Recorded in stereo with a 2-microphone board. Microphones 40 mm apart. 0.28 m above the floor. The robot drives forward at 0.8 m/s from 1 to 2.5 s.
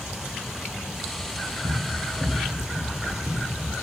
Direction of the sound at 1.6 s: 75° right (ahead or behind).